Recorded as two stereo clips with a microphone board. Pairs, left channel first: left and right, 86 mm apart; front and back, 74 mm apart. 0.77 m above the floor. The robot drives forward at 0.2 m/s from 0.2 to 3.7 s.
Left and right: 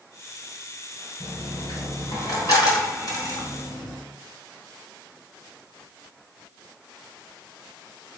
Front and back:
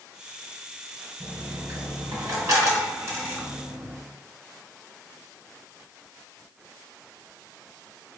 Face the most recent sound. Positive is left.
turn(degrees=140)